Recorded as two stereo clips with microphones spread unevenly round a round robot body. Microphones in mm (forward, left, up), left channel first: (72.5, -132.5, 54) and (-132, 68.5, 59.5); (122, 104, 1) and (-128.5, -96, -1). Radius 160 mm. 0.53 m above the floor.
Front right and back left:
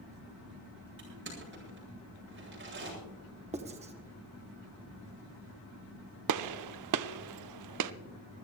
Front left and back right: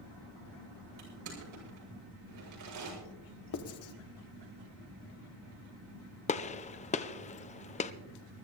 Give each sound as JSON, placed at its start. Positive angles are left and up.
{"t": 1.0, "sound": "crushing", "azimuth_deg": -175, "distance_m": 7.5}
{"t": 3.5, "sound": "writing", "azimuth_deg": 70, "distance_m": 1.2}
{"t": 6.3, "sound": "a gunshot", "azimuth_deg": 110, "distance_m": 0.6}